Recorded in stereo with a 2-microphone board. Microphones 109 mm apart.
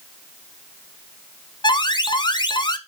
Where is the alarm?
45° left (ahead or behind), 0.9 m.